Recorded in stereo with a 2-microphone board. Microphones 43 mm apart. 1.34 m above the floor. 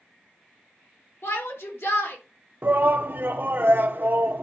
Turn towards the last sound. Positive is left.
turn(degrees=-55)  # may be behind; listen again after turning